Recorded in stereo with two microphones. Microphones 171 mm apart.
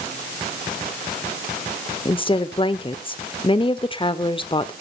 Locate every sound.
2.0 s a woman speaking: 30° left (ahead or behind), 0.9 m